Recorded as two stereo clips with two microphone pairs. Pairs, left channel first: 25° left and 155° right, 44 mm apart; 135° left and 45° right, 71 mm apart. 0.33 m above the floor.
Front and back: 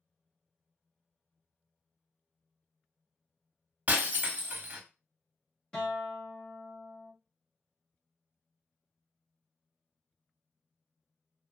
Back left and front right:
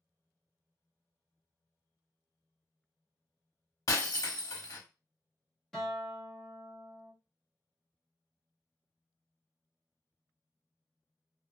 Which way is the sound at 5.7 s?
55° left.